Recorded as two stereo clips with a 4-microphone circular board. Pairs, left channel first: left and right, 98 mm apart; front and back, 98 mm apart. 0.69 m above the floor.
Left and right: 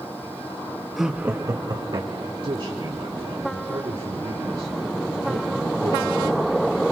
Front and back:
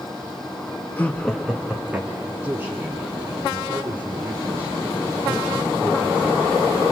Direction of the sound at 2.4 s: 115° right.